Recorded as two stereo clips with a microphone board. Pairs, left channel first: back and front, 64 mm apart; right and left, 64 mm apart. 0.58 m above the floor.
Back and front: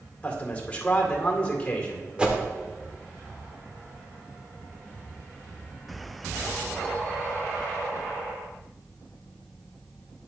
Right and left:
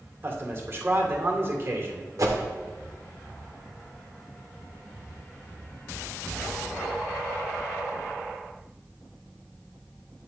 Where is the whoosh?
70° left, 1.0 m.